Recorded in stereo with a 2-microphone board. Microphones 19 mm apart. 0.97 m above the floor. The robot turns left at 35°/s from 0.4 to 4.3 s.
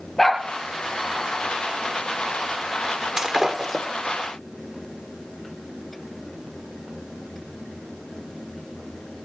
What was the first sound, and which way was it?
A dog barking, 10° left (ahead or behind).